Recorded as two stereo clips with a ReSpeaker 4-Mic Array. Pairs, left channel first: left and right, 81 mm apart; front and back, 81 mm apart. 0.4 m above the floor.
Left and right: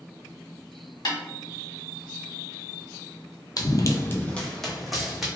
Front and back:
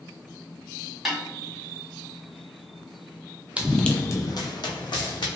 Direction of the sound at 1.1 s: 95° left.